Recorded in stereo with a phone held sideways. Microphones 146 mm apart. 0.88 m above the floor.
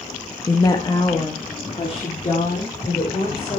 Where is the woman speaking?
20° left (ahead or behind), 1.2 m; by 3.6 s 45° left (ahead or behind), 4 m.